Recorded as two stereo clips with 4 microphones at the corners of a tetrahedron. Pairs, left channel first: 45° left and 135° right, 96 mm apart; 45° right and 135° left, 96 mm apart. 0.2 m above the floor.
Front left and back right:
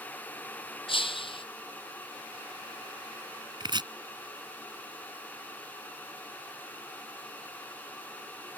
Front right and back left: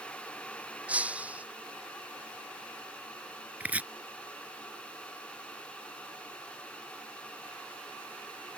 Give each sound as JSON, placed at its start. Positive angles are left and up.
{"t": 0.9, "sound": "breaking glass", "azimuth_deg": 60}
{"t": 3.6, "sound": "chopping", "azimuth_deg": -155}